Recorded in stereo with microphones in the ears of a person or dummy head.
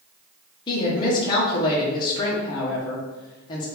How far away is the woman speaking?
About 0.8 m.